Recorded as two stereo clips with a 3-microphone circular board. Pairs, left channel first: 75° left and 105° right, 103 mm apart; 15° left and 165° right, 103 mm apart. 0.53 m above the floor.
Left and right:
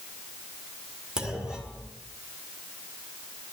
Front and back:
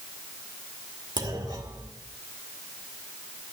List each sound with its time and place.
1.2 s a clunk: 175° left, 2.0 m